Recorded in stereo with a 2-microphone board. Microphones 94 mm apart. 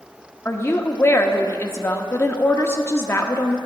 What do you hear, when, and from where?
0.5 s a woman speaking: 25° left (ahead or behind), 0.7 m